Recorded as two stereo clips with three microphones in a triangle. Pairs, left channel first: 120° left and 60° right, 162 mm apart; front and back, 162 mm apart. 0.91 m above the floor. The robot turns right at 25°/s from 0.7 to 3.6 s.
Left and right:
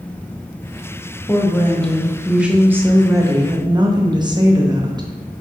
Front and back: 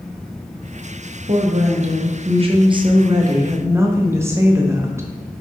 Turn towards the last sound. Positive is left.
turn(degrees=-110)